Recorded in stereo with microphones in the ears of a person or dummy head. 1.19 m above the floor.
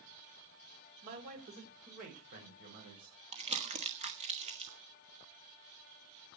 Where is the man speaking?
65° right (ahead or behind), 3.5 m; by 3.1 s 55° right (ahead or behind), 6 m.